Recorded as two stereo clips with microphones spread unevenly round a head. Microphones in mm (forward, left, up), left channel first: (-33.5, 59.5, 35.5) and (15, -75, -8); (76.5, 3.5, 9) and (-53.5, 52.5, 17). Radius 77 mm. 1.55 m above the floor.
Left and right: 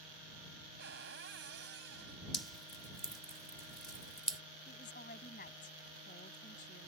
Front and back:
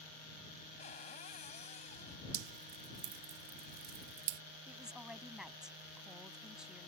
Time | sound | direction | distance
0.8 | a cupboard door | 75° right | ?
2.3 | dripping | 165° right | ?
4.7 | a woman speaking | 75° left | ?